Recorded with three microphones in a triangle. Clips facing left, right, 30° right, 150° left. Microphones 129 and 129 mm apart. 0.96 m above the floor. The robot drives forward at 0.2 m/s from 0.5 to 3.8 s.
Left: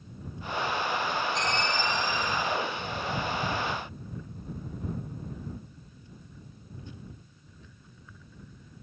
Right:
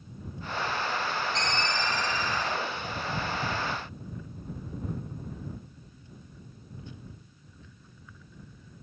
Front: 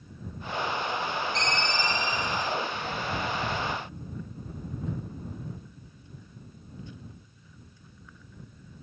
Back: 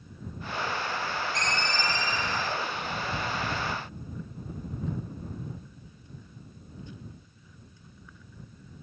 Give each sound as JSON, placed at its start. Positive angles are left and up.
{"t": 1.4, "sound": "a ringtone", "azimuth_deg": -90, "distance_m": 0.8}